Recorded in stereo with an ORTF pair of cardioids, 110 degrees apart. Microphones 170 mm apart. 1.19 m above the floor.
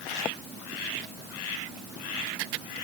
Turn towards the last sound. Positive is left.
No sound to turn to.